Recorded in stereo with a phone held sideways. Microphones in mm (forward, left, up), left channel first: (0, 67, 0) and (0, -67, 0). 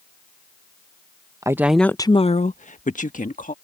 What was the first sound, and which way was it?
A woman speaking, 25° right (ahead or behind).